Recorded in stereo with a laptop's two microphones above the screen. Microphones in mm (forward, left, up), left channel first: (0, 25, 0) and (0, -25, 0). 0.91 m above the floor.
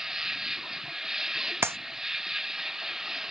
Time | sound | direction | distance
0.0 | an insect | 10° right (ahead or behind) | ?
1.6 | a clap | 55° right (ahead or behind) | ?